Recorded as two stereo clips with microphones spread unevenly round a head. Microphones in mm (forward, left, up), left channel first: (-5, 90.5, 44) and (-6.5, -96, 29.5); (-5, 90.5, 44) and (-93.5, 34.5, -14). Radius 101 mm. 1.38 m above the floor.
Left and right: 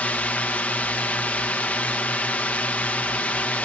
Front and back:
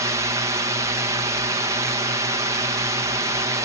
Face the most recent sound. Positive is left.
turn(degrees=170)